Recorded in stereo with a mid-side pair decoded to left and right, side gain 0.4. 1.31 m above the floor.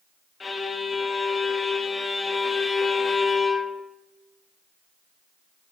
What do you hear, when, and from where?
0.4 s a violin: 35° left, 0.8 m